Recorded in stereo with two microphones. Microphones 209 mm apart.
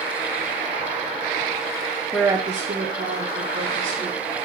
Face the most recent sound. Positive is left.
turn(degrees=-65)  # may be behind; listen again after turning